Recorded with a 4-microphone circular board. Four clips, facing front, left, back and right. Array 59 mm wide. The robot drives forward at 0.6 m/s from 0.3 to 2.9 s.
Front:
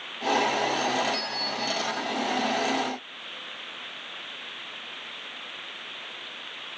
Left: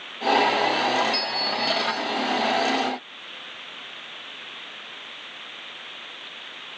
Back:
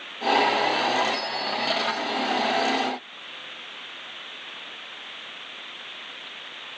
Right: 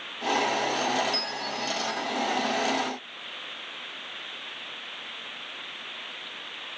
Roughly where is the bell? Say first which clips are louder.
Left 5 dB, back 3 dB; left.